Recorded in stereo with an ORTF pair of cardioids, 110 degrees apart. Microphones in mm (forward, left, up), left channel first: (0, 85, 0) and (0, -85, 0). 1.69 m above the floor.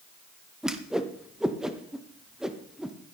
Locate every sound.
0.6 s a whoosh: 5° right, 1.1 m